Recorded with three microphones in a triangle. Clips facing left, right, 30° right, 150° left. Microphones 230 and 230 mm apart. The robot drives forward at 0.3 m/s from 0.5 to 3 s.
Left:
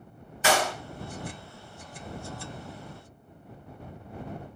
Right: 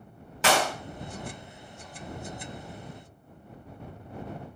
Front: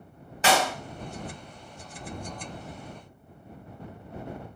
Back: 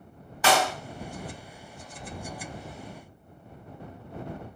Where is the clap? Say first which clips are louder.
Even, even; 95° right, 1.3 m; by 0.7 s 100° right, 1.3 m.